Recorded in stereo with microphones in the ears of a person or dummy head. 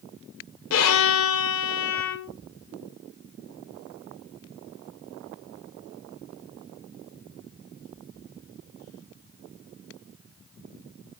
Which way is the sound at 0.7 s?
65° left (ahead or behind).